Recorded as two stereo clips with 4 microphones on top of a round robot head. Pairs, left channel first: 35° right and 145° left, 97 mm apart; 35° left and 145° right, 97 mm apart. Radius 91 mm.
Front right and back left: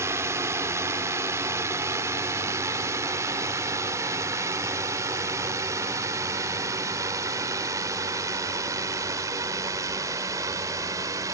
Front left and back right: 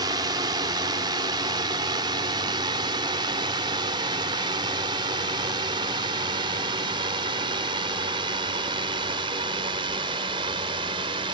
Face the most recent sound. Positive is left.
turn(degrees=-165)